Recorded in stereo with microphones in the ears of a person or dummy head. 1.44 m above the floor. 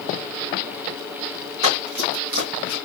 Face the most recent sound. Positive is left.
turn(degrees=-60)  # may be behind; listen again after turning